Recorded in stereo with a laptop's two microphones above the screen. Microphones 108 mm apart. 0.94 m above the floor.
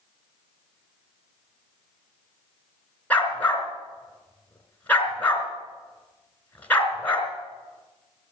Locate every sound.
3.1 s a dog barking: 15° left (ahead or behind), 3 m